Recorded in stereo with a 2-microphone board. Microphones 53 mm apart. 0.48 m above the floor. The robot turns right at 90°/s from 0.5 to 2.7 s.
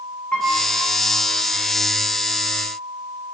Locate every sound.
0.3 s a piano: 20° left (ahead or behind), 4.5 m; by 0.6 s 25° left (ahead or behind), 4.5 m